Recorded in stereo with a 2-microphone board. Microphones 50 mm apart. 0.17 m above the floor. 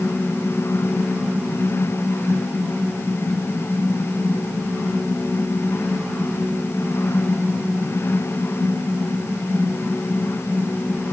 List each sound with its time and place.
Only background noise.